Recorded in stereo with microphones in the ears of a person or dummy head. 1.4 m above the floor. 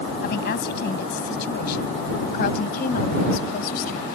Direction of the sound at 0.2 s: 65° left (ahead or behind).